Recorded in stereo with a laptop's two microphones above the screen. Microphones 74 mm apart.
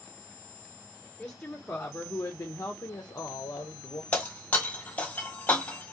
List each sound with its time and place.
1.2 s a woman speaking: 15° left (ahead or behind), 1.3 m; by 4.0 s 65° left (ahead or behind), 1.0 m
4.1 s breaking glass: 20° left (ahead or behind), 1.3 m